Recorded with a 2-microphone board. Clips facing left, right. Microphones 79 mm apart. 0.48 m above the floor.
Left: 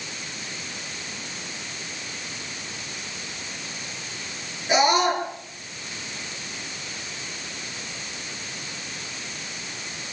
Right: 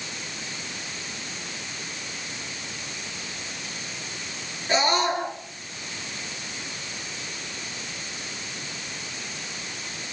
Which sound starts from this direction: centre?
A scream, at 4.7 s.